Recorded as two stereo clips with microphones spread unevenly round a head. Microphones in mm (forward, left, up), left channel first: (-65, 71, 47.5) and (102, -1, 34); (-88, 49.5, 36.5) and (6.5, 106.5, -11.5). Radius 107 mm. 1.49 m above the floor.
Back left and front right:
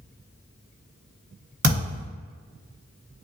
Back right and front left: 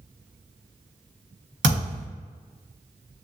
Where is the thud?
5° left, 1.7 m.